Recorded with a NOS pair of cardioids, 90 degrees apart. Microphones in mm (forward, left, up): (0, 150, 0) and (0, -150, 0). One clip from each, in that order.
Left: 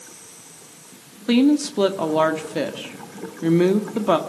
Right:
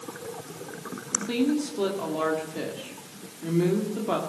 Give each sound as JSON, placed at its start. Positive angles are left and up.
{"t": 1.3, "sound": "a woman speaking", "azimuth_deg": 65, "distance_m": 2.0}